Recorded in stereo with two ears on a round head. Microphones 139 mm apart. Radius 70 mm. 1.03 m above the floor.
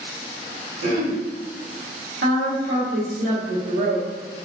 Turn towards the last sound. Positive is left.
turn(degrees=-60)  # may be behind; listen again after turning